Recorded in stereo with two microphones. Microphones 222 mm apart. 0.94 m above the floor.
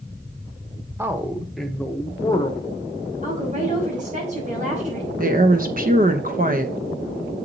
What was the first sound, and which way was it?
A man speaking, 10° right (ahead or behind).